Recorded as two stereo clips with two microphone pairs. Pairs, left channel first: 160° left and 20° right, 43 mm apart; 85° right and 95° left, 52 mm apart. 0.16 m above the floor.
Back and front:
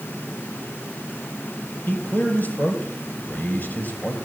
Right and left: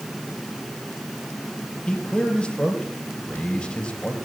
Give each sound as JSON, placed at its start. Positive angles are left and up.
{"t": 1.9, "sound": "a man speaking", "azimuth_deg": -150, "distance_m": 3.5}